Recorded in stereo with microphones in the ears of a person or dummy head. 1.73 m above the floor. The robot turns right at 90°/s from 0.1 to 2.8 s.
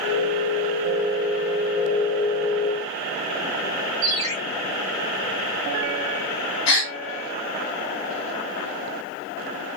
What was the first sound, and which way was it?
A ringtone, 40° right (ahead or behind).